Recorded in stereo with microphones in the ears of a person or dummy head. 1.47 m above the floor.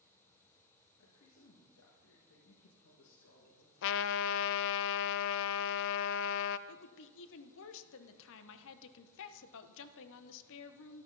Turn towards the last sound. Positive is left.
turn(degrees=75)  # may be behind; listen again after turning